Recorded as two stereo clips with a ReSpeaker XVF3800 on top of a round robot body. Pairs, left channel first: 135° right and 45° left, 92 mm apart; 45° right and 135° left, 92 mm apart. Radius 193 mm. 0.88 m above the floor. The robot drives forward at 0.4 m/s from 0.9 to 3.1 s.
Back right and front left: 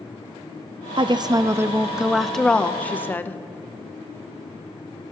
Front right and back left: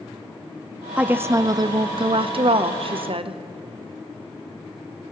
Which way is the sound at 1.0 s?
60° left.